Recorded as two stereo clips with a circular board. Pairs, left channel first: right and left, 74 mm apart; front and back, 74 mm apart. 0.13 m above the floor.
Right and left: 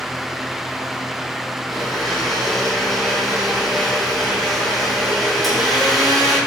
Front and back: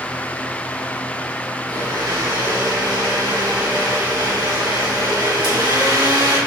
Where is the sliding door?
No sliding door in this recording.